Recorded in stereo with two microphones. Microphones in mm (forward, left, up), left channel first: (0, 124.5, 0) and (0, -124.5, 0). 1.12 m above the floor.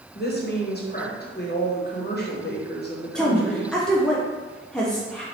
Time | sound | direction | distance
0.1 | a woman speaking | 40° left (ahead or behind) | 1.1 m
3.1 | a woman speaking | 5° left (ahead or behind) | 0.6 m